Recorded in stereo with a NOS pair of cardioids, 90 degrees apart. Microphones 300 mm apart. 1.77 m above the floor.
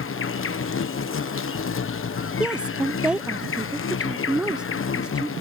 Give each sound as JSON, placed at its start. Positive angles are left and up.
{"t": 0.0, "sound": "an insect", "azimuth_deg": 45}
{"t": 2.4, "sound": "a woman speaking", "azimuth_deg": -5}